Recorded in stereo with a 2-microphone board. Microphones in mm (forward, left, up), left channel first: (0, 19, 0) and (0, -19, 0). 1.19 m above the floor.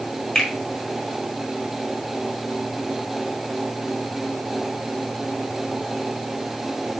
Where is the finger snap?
10° left (ahead or behind), 1.5 m.